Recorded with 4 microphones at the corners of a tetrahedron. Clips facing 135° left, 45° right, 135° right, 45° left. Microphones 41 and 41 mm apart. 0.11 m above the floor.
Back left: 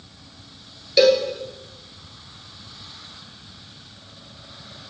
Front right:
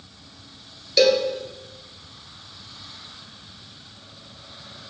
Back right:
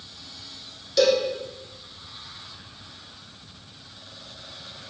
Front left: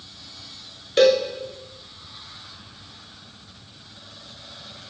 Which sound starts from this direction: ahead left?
A cowbell, at 1.0 s.